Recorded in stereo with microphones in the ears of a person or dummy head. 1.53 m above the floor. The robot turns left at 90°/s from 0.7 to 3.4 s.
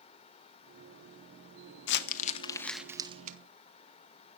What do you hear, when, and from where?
1.9 s crumpling: 75° left (ahead or behind), 1.1 m; by 3.4 s 55° right (ahead or behind), 1.1 m